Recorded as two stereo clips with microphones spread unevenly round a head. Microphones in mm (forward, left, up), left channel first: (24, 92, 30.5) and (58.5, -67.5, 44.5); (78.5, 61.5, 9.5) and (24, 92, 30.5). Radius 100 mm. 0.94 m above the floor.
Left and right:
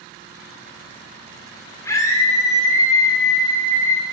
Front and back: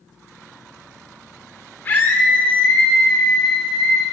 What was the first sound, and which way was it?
A scream, 30° left.